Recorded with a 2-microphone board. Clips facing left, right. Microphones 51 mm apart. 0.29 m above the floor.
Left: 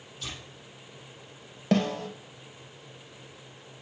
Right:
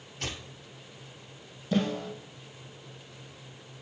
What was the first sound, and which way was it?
Tearing paper, 65° right (ahead or behind).